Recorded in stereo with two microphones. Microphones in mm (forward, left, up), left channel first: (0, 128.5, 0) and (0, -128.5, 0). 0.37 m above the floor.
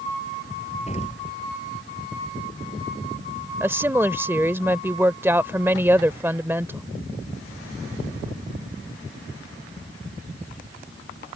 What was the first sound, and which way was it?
An explosion, 25° left (ahead or behind).